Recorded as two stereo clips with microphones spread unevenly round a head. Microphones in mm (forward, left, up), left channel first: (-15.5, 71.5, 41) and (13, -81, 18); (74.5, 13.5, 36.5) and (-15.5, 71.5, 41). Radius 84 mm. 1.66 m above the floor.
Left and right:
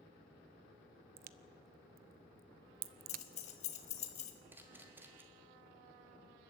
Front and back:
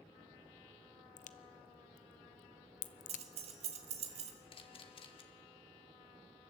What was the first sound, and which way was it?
A crack, 45° right.